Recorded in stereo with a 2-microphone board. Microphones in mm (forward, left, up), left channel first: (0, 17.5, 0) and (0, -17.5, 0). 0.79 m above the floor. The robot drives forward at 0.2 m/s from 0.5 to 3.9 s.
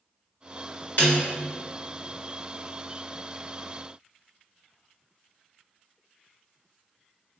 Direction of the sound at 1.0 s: 55° left (ahead or behind).